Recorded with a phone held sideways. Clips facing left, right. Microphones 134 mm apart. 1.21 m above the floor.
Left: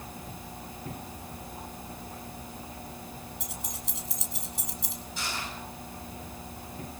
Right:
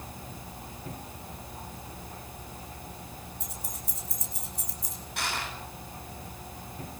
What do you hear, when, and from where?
3.4 s keys jangling: 85° left, 4.5 m; by 5.0 s 75° left (ahead or behind), 3.5 m
5.2 s crushing: 60° right (ahead or behind), 8.5 m